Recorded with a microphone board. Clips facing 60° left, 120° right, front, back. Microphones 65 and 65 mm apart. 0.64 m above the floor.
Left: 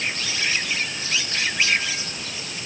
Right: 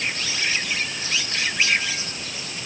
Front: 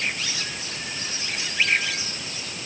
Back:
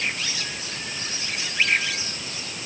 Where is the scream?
I don't hear a scream.